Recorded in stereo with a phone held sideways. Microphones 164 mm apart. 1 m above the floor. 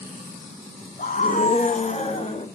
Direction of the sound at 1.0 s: 55° left (ahead or behind).